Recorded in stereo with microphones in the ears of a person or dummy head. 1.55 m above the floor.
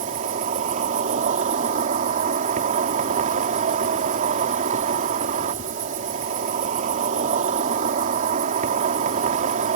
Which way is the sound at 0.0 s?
45° right (ahead or behind).